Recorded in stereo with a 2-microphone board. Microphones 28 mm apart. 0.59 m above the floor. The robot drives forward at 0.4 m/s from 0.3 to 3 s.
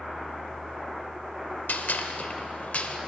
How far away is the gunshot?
About 0.8 m.